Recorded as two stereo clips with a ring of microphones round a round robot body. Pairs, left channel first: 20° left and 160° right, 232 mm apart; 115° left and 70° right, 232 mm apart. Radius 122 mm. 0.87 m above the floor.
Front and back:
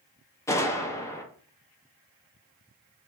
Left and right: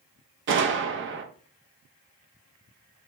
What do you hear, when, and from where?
0.5 s a gunshot: 55° right, 0.6 m